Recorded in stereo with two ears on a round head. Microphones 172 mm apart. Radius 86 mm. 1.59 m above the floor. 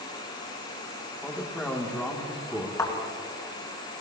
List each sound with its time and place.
1.2 s a man speaking: 5° left (ahead or behind), 1.5 m
2.8 s a thud: 15° left (ahead or behind), 2.5 m